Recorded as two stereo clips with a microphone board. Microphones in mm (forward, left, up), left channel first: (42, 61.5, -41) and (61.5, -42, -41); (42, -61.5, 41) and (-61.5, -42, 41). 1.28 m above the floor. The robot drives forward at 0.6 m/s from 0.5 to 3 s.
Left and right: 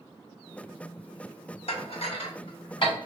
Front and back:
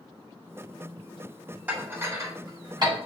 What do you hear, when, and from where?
1.7 s dishes clattering: 100° left, 1.0 m; by 2.9 s 135° left, 1.4 m